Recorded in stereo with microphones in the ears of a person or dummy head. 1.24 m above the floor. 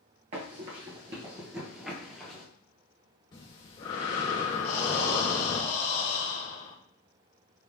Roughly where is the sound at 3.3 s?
Centre.